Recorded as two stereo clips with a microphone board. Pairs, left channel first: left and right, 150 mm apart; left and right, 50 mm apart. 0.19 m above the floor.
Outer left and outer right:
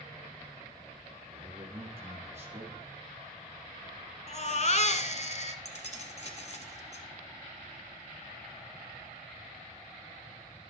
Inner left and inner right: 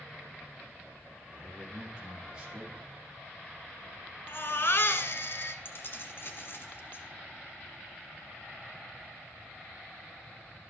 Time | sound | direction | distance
1.3 | a man speaking | 15° right (ahead or behind) | 3 m
4.3 | a baby crying | 50° left (ahead or behind) | 0.9 m
5.7 | keys jangling | 50° left (ahead or behind) | 1.2 m